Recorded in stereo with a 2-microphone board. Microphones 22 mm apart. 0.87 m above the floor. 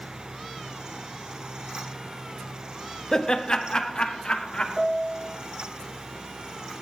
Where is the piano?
5° left (ahead or behind), 0.7 m.